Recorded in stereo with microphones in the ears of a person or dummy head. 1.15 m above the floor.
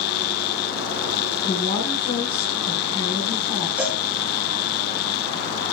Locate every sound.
0.0 s a fan: 65° left (ahead or behind), 0.8 m
1.4 s a woman speaking: 25° left (ahead or behind), 9.5 m
3.8 s a cowbell: 5° right (ahead or behind), 5 m